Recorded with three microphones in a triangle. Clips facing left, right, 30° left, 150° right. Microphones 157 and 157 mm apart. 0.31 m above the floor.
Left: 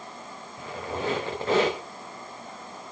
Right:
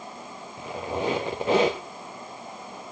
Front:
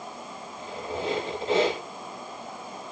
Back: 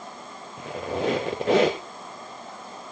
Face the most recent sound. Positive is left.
turn(degrees=-160)